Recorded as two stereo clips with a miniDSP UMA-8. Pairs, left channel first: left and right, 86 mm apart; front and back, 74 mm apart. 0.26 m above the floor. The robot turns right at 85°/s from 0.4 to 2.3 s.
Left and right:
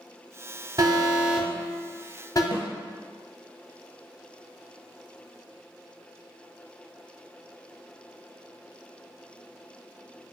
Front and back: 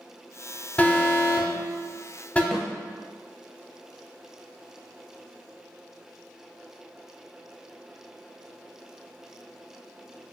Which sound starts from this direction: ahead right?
An alarm, at 0.8 s.